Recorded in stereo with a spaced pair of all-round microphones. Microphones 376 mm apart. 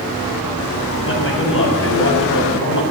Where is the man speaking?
30° left (ahead or behind), 8 m.